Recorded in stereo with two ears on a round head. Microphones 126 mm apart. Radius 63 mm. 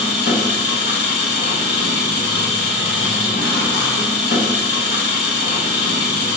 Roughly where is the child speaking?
No child speaking in this recording.